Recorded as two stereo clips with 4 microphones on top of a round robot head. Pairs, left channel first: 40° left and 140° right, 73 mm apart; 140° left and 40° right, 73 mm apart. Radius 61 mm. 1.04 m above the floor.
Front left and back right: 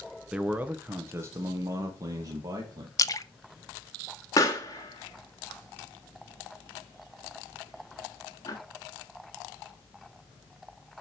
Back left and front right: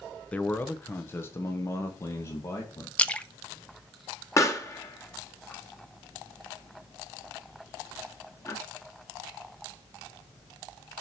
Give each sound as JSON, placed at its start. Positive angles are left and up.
{"t": 0.3, "sound": "a man speaking", "azimuth_deg": 170, "distance_m": 0.7}
{"t": 3.0, "sound": "a splash", "azimuth_deg": 70, "distance_m": 0.6}
{"t": 4.4, "sound": "a pop", "azimuth_deg": 90, "distance_m": 1.4}